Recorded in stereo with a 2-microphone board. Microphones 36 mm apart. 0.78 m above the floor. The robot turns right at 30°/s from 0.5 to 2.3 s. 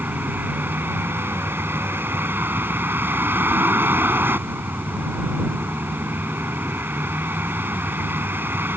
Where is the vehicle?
120° right; by 8.8 s 70° right.